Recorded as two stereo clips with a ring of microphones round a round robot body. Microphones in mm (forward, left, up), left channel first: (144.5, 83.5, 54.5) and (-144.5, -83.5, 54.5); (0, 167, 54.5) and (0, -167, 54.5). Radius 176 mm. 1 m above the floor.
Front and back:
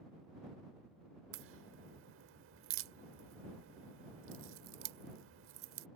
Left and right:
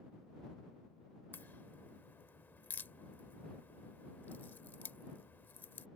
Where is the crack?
175° left.